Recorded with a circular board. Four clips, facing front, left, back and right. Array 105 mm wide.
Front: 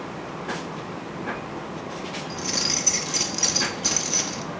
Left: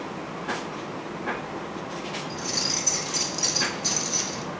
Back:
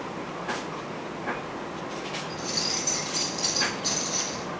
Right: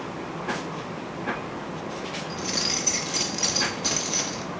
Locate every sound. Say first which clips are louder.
2.3 s keys jangling: right 1 dB, front 2 dB; 45° right, 0.8 m